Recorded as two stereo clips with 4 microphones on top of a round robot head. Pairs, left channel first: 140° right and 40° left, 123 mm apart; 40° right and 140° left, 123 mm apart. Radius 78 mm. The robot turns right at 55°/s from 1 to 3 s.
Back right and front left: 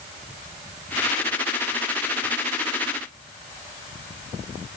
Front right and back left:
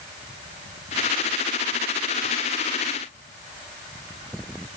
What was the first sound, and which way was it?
Only background noise.